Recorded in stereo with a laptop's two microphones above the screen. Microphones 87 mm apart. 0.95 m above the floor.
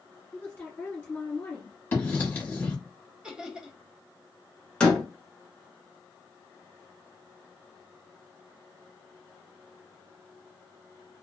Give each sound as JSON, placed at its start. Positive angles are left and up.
{"t": 0.3, "sound": "a woman speaking", "side_deg": 20, "distance_m": 1.6}
{"t": 1.9, "sound": "writing", "side_deg": 20, "distance_m": 1.1}
{"t": 3.2, "sound": "laughter", "side_deg": -10, "distance_m": 0.7}
{"t": 4.8, "sound": "a door slam", "side_deg": 10, "distance_m": 0.8}